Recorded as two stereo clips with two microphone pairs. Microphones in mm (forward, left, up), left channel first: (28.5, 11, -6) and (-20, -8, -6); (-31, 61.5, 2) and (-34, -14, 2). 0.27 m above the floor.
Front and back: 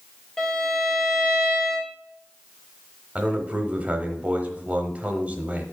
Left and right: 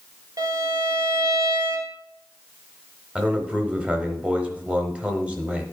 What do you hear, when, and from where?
0.4 s a violin: 60° right, 1.2 m
3.1 s a man speaking: 145° right, 1.0 m